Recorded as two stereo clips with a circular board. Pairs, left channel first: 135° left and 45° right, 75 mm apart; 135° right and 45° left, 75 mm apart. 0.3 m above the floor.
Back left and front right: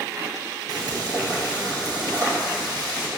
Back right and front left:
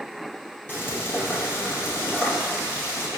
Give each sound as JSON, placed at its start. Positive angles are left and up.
{"t": 0.7, "sound": "frying", "azimuth_deg": -75, "distance_m": 2.5}